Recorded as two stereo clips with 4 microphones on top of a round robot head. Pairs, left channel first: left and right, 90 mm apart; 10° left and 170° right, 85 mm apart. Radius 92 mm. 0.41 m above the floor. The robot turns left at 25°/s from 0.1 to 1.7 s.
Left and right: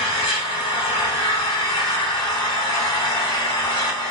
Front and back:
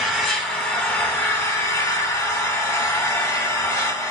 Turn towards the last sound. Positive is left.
turn(degrees=60)